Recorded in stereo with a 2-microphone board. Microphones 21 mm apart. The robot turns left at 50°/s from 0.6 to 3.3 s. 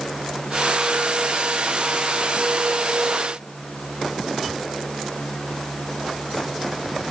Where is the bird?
I don't hear a bird.